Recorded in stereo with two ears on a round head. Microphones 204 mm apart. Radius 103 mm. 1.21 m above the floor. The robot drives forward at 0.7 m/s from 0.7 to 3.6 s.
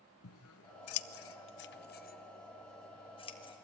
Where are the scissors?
65° left (ahead or behind), 0.8 m; by 3.5 s 20° left (ahead or behind), 2.0 m.